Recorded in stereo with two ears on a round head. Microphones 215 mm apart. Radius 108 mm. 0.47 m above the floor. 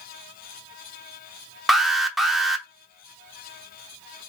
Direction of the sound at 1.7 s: Centre (ahead or behind).